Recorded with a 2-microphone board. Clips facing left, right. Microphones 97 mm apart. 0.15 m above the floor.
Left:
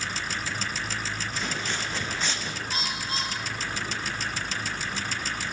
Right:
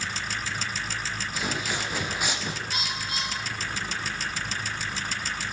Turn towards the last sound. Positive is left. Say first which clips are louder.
# left 1 dB
turn(degrees=35)  # may be behind; listen again after turning